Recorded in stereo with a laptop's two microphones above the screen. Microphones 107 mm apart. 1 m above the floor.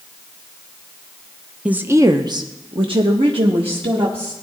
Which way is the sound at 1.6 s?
10° right (ahead or behind).